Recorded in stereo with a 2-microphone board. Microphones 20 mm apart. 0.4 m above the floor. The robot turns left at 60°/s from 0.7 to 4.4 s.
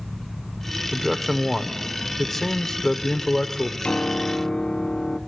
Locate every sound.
0.9 s a man speaking: 20° right (ahead or behind), 0.8 m; by 3.7 s 25° left (ahead or behind), 0.8 m
3.8 s a piano: 85° left, 0.7 m; by 5.2 s 50° left, 0.7 m